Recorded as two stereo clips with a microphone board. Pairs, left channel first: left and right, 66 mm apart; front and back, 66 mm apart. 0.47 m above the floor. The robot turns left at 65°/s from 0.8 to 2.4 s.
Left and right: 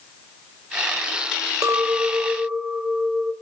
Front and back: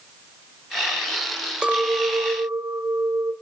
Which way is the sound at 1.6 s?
105° right.